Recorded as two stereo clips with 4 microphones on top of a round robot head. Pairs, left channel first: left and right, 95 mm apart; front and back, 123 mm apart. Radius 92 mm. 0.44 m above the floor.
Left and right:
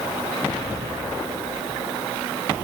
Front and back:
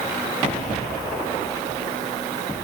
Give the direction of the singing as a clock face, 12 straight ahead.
No singing in this recording.